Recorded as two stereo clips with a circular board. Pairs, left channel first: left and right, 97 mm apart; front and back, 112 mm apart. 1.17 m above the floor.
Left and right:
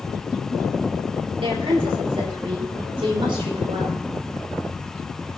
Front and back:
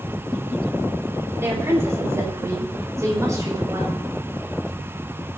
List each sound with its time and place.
1.4 s a woman speaking: 110° right, 3.5 m; by 4.0 s 120° right, 4.5 m